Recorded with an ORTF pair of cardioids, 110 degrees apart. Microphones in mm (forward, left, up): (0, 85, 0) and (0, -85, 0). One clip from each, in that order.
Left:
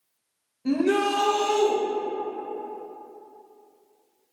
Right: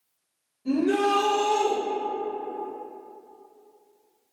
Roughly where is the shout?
Ahead left.